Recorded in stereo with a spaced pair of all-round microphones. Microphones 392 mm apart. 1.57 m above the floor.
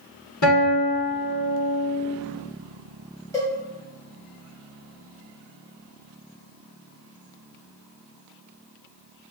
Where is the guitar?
50° left (ahead or behind), 1.2 m.